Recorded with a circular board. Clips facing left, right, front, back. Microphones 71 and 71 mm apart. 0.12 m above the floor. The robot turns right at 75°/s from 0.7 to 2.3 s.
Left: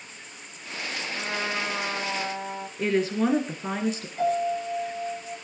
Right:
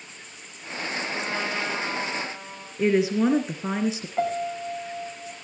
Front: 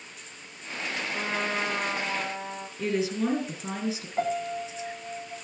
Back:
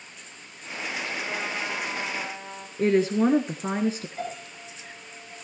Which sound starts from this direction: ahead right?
A piano, at 4.2 s.